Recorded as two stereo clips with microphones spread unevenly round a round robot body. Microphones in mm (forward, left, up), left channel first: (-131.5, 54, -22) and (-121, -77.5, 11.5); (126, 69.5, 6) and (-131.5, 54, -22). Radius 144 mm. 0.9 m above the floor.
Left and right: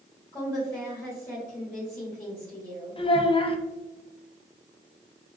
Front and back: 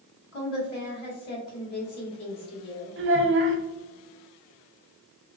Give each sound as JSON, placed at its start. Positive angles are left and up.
{"t": 0.3, "sound": "a woman speaking", "azimuth_deg": 25, "distance_m": 1.8}
{"t": 3.0, "sound": "a child speaking", "azimuth_deg": 140, "distance_m": 0.9}